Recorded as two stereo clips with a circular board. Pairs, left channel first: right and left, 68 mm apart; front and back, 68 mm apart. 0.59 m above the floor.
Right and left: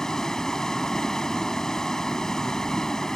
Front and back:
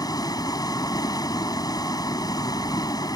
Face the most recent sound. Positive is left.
turn(degrees=-10)